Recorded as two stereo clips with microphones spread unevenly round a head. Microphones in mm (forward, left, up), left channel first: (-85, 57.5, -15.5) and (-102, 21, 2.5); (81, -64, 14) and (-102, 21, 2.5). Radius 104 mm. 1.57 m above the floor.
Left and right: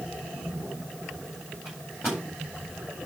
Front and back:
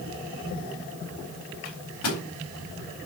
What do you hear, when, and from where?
1.6 s a microwave: 15° right, 4 m